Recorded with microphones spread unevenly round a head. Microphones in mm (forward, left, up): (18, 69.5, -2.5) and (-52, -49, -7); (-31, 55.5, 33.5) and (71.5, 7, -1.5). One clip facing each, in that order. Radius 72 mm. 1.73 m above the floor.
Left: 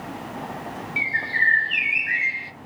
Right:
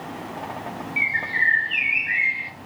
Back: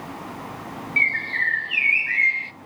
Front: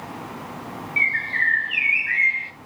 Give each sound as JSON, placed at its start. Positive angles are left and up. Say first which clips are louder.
{"t": 1.0, "sound": "a bird", "louder": "even, front 1 dB", "azimuth_deg": 95, "distance_m": 0.5}